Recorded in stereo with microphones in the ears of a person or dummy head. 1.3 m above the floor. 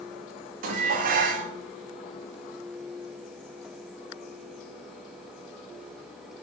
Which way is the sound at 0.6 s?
50° right (ahead or behind).